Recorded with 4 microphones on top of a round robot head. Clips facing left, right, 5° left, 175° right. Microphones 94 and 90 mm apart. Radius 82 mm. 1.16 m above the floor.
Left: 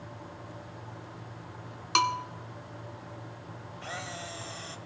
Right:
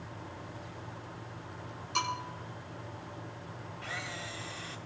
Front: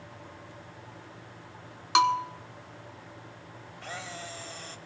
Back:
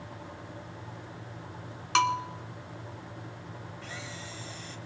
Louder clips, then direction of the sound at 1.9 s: Left 7 dB, front 3 dB; 75° left.